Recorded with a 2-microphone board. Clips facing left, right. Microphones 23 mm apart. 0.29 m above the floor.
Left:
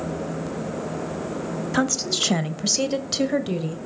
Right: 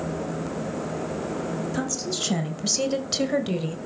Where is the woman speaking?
45° left (ahead or behind), 1.7 m; by 3.8 s 15° right (ahead or behind), 1.5 m.